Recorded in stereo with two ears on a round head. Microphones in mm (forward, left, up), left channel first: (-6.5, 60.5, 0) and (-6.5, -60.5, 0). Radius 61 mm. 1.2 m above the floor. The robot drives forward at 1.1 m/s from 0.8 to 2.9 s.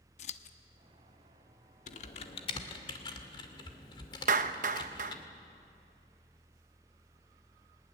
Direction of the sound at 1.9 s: 60° left (ahead or behind).